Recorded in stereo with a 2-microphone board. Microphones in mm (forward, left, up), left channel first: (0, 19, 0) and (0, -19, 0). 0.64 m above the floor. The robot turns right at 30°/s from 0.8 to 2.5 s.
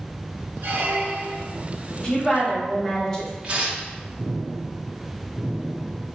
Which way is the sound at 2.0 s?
15° left (ahead or behind).